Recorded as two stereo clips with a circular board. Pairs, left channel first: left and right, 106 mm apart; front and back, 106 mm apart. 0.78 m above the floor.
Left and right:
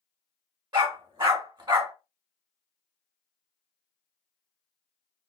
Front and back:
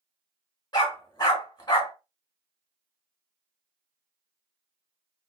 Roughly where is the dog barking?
Ahead right.